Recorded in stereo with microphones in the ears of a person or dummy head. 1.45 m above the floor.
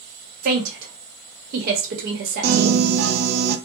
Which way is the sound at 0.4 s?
50° right (ahead or behind).